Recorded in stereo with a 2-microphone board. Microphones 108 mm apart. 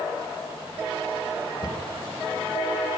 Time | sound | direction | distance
1.6 | a cupboard door | 40° left (ahead or behind) | 2.5 m